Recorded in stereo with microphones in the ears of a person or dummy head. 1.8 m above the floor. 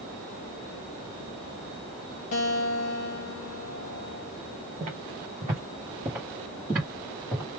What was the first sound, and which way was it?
A guitar, 35° left (ahead or behind).